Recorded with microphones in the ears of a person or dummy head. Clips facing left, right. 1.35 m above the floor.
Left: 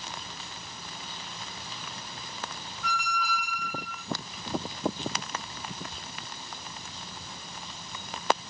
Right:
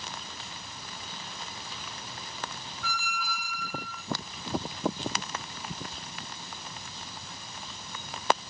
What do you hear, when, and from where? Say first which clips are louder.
2.8 s a squeak: left 5 dB; 35° left (ahead or behind), 0.6 m